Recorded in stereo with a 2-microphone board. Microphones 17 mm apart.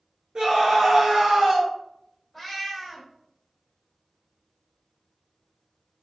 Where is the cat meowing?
5° right (ahead or behind), 1.5 m.